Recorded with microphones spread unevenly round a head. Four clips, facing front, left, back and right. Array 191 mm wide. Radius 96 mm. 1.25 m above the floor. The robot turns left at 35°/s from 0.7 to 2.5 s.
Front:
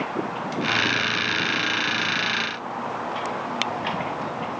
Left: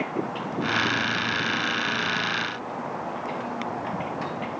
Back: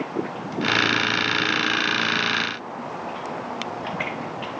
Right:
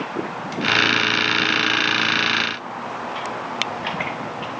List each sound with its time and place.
Only background noise.